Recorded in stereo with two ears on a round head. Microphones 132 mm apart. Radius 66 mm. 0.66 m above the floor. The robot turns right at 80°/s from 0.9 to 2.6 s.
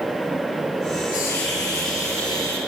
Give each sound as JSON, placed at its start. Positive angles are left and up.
{"t": 1.1, "sound": "a hiss", "azimuth_deg": 55, "distance_m": 6.0}